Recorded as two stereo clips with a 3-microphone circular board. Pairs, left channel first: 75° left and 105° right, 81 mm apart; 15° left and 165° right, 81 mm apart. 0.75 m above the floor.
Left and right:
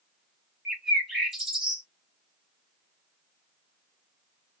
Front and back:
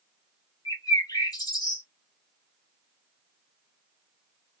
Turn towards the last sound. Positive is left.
turn(degrees=-25)